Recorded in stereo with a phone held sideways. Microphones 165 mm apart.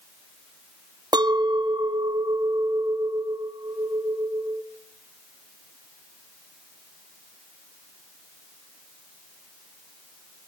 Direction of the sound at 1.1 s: 25° right (ahead or behind).